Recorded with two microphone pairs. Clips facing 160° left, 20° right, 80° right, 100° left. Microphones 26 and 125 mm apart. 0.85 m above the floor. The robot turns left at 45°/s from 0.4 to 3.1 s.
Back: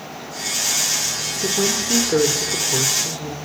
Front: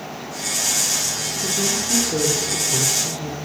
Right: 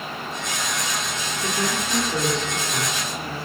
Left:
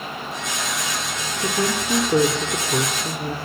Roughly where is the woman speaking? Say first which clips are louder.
Back 3 dB, left 4 dB; behind.